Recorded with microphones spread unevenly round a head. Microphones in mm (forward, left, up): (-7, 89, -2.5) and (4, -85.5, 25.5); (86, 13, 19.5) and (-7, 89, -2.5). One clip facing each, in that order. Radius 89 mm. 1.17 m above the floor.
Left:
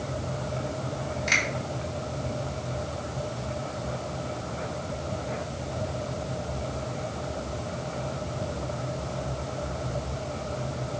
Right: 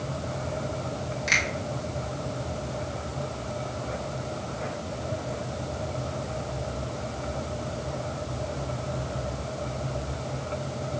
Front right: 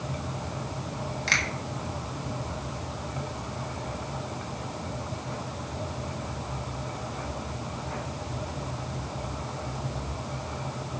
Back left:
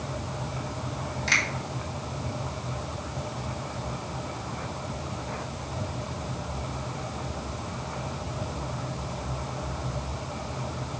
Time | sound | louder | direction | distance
1.3 | a finger snap | left 1 dB, back left 1 dB | 5° right | 3 m